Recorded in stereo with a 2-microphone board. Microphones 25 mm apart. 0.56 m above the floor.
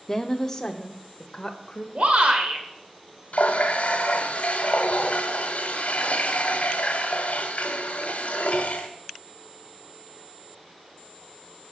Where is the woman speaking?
15° left (ahead or behind), 0.8 m; by 1.9 s 25° left (ahead or behind), 1.9 m.